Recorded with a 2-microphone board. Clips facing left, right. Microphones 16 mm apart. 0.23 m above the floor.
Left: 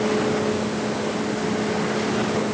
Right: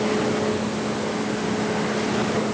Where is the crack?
No crack in this recording.